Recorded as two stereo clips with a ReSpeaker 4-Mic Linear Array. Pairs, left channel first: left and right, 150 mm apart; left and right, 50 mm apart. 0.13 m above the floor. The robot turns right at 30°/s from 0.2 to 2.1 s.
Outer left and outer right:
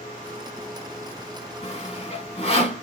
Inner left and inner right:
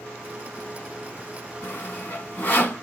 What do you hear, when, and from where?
1.6 s sawing: 40° left (ahead or behind), 1.5 m